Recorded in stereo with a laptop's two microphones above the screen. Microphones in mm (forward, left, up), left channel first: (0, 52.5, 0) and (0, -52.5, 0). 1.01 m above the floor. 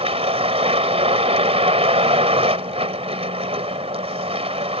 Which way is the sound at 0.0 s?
75° right (ahead or behind).